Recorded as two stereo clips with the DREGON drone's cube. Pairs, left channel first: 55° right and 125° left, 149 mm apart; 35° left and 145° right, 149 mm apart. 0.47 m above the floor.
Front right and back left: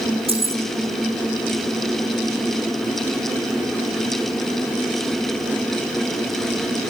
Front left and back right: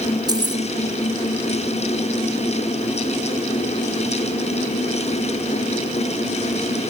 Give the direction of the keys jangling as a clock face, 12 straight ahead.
7 o'clock.